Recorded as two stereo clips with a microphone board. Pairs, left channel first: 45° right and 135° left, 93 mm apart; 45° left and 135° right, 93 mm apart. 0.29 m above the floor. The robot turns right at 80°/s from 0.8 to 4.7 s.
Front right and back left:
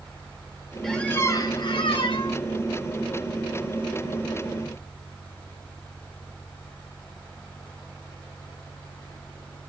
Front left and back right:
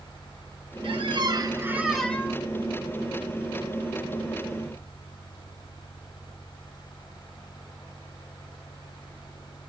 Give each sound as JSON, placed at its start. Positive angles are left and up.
{"t": 0.8, "sound": "a squeak", "azimuth_deg": -135, "distance_m": 1.2}